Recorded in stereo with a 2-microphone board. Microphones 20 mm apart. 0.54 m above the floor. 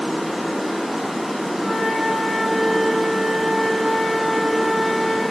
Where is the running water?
25° right (ahead or behind), 2.5 m.